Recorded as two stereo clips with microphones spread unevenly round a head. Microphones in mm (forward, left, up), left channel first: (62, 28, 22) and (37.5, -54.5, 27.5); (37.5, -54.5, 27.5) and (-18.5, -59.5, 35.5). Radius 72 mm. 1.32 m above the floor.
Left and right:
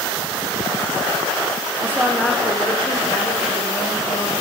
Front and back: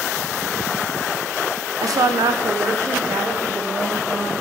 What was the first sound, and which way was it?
A woman speaking, 170° right.